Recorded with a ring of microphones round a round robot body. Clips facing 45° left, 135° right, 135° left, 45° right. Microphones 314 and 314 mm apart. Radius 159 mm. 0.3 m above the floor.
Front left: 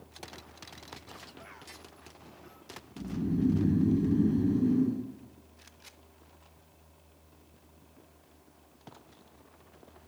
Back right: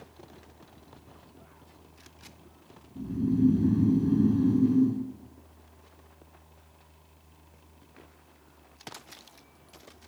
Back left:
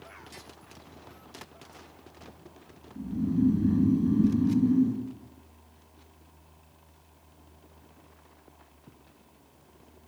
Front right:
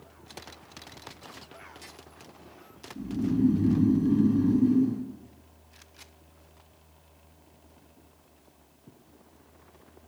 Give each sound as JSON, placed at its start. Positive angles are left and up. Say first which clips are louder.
{"t": 3.0, "sound": "snoring", "louder": "back right 5 dB, front right 1 dB", "azimuth_deg": -130, "distance_m": 2.5}